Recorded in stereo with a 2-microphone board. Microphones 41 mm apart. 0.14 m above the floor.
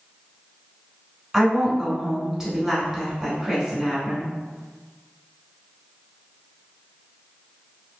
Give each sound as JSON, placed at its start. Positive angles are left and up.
{"t": 1.3, "sound": "a woman speaking", "side_deg": -15, "distance_m": 1.2}